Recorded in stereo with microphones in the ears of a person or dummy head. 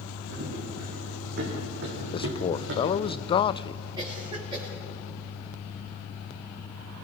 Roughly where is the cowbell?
I don't hear a cowbell.